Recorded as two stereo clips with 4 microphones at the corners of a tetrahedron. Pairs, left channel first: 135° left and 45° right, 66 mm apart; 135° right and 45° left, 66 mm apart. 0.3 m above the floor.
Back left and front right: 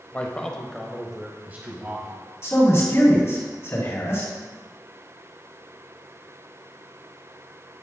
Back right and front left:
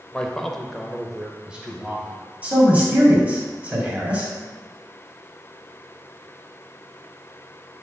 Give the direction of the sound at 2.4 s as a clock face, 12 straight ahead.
8 o'clock.